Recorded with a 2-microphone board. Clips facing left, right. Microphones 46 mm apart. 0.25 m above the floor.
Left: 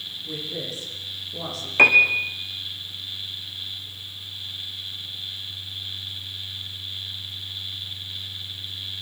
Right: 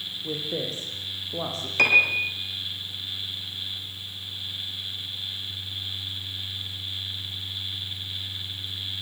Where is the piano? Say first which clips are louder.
Left 4 dB; 20° left (ahead or behind), 4.5 m.